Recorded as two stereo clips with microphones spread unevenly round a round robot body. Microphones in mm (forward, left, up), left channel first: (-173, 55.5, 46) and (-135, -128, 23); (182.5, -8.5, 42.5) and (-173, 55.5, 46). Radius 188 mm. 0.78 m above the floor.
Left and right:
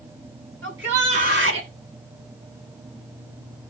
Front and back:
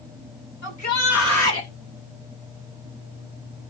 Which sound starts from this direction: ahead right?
A shout, at 0.6 s.